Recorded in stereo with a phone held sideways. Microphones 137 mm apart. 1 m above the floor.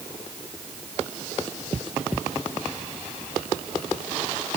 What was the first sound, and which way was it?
Only background noise.